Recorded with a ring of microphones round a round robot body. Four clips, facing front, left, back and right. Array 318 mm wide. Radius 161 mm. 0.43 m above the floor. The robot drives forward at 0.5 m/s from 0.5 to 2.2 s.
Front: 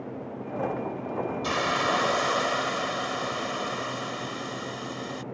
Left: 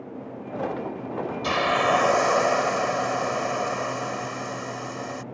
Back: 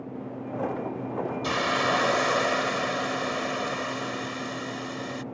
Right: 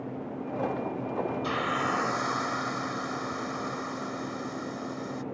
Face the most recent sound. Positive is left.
turn(degrees=105)